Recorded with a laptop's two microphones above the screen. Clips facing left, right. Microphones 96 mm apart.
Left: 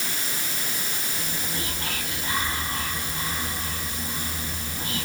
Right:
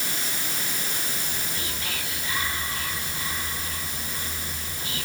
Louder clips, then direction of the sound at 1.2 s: Left 2 dB; 45° left (ahead or behind).